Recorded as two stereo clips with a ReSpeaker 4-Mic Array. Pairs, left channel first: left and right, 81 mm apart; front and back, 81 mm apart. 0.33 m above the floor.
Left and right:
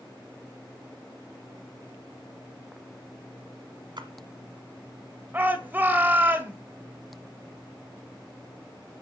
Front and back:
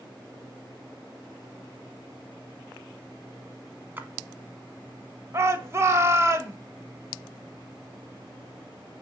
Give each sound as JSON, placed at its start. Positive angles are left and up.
{"t": 4.0, "sound": "a splash", "azimuth_deg": -115, "distance_m": 1.3}
{"t": 5.3, "sound": "a shout", "azimuth_deg": -145, "distance_m": 1.6}